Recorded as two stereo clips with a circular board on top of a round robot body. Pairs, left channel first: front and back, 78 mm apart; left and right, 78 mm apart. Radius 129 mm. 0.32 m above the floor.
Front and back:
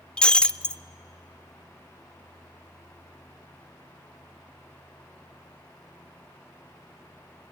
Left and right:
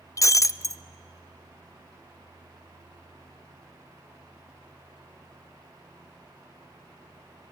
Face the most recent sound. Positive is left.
turn(degrees=75)